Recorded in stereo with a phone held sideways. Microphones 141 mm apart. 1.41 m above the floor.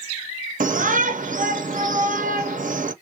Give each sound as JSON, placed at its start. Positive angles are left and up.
{"t": 0.6, "sound": "a shout", "side_deg": -70, "distance_m": 0.8}